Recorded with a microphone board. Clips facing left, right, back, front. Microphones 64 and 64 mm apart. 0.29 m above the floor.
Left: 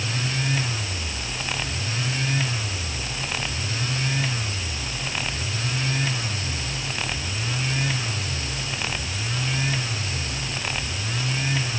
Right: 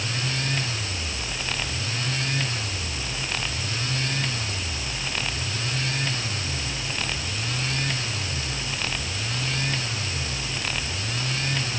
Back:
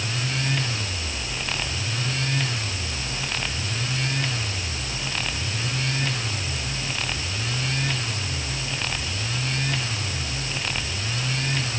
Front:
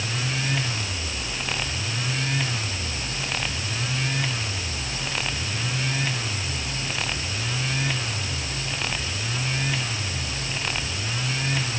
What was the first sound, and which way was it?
Only background noise.